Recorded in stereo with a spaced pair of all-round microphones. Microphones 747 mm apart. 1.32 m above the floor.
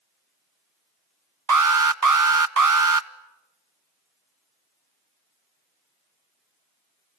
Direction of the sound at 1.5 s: 25° right (ahead or behind).